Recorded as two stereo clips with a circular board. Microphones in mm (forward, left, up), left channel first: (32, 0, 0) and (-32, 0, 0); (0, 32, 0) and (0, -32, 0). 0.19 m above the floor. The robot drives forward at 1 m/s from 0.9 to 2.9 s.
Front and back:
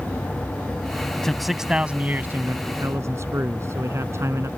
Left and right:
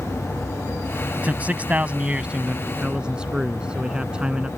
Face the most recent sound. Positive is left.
turn(degrees=-160)